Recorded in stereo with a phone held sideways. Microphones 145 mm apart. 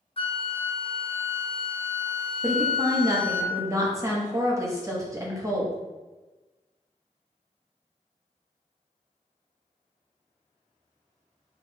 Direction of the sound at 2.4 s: 20° right (ahead or behind).